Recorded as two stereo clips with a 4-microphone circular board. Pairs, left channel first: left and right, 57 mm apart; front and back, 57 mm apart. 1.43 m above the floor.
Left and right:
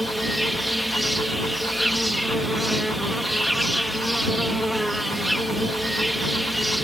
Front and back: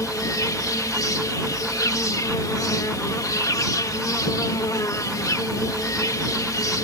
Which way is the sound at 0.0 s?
Straight ahead.